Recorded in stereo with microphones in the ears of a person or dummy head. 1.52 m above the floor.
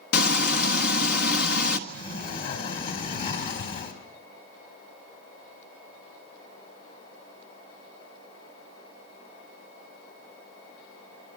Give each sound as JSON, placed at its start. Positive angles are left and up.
{"t": 0.1, "sound": "frying", "side_deg": 55, "distance_m": 1.3}
{"t": 1.9, "sound": "a sliding door", "side_deg": 50, "distance_m": 4.0}